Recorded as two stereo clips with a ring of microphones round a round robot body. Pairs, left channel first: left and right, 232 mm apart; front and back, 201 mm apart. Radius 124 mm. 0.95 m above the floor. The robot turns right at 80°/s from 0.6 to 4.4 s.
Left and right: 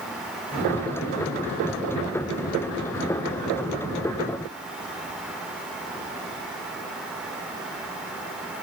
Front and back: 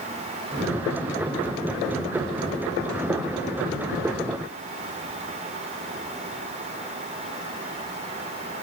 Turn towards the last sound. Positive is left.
No sound to turn to.